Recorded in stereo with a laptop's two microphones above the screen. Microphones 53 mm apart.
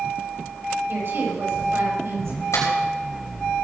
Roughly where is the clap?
Left.